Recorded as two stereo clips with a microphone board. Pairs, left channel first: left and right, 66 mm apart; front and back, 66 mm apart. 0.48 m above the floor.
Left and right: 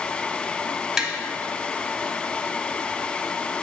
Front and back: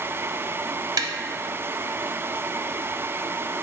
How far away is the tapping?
About 0.5 m.